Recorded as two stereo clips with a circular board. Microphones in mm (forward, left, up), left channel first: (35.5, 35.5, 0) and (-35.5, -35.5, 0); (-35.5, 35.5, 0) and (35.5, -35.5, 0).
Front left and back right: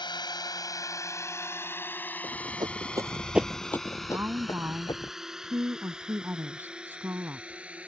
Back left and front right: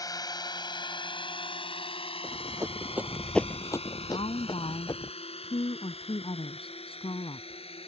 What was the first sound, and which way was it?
A drone, 85° left.